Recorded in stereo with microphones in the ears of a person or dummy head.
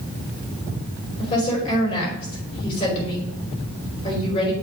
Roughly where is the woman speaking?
Left.